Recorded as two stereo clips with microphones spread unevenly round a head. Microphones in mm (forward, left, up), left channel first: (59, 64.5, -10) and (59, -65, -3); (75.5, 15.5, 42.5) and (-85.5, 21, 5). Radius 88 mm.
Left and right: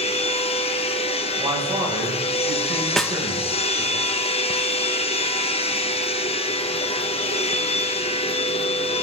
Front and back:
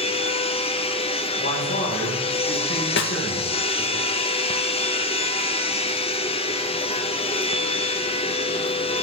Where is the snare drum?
5° left, 1.0 m.